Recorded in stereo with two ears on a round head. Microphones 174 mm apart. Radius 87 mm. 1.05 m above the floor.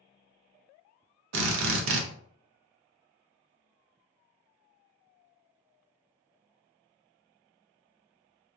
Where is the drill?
70° right (ahead or behind), 0.5 m.